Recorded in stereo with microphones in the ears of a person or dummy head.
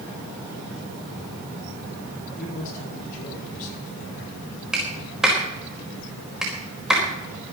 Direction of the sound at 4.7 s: Centre (ahead or behind).